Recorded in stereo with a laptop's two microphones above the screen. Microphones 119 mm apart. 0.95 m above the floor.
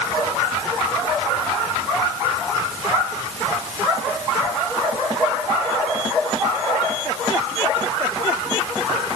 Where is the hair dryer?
I don't hear a hair dryer.